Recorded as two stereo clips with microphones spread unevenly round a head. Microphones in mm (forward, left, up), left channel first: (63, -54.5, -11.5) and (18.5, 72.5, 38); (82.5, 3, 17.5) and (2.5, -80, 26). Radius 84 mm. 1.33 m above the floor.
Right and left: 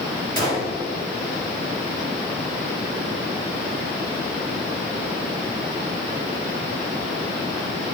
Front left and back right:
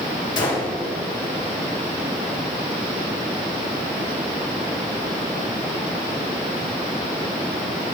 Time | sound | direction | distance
0.4 | a gunshot | 80° left | 2.0 m